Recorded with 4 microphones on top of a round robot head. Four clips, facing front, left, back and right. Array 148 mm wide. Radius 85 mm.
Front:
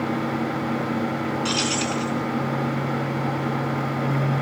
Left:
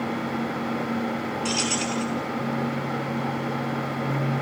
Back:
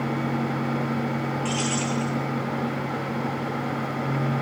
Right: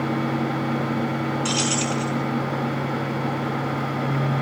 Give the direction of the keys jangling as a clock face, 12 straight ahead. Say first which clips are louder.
Right 3 dB, front 1 dB; 12 o'clock.